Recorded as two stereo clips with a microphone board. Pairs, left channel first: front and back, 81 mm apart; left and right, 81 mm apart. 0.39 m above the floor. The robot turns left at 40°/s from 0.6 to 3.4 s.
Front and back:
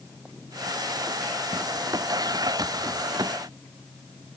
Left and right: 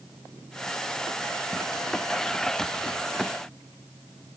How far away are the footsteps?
No footsteps in this recording.